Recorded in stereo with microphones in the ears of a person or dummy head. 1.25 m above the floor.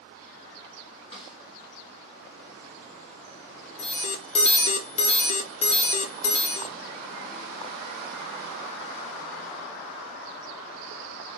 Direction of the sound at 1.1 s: 30° left (ahead or behind).